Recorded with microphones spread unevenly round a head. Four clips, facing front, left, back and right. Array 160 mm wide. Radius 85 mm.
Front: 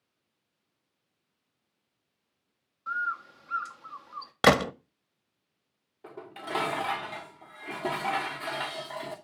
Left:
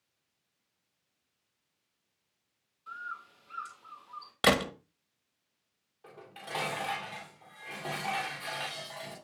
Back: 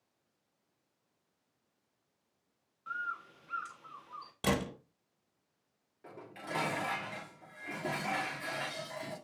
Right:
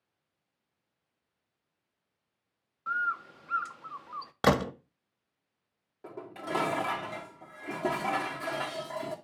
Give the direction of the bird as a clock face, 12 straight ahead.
2 o'clock.